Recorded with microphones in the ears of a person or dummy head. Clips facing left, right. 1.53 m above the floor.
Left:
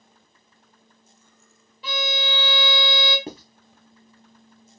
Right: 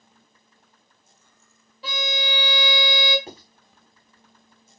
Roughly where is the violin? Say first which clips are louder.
Left 1 dB; right.